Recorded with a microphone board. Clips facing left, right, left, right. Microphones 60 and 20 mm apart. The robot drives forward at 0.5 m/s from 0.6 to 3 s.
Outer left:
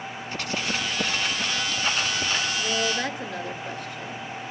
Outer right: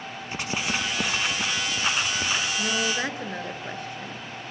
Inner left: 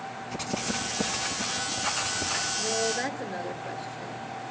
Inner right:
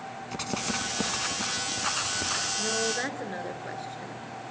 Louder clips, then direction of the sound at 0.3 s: Outer right 1 dB, even; 20° right (ahead or behind).